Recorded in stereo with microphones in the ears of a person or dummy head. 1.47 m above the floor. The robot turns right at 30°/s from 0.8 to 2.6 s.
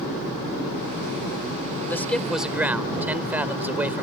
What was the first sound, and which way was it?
A man speaking, 20° left (ahead or behind).